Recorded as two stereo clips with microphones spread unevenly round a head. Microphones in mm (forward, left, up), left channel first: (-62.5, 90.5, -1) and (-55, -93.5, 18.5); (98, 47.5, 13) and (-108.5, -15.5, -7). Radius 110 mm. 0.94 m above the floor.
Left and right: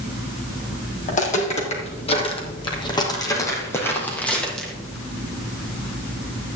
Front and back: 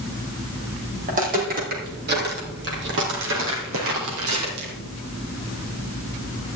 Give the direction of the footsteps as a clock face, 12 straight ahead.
7 o'clock.